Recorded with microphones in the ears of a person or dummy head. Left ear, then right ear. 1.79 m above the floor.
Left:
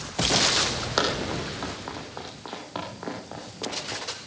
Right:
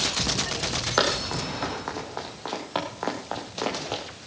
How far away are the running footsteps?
About 3.5 m.